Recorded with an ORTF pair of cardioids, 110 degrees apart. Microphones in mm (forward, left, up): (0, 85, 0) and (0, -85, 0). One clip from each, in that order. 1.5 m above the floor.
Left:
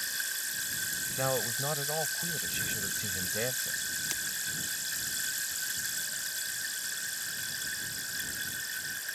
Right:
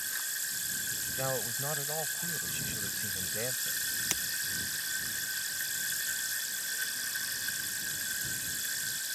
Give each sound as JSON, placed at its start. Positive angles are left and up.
{"t": 1.2, "sound": "a man speaking", "azimuth_deg": 15}
{"t": 4.1, "sound": "breaking glass", "azimuth_deg": -35}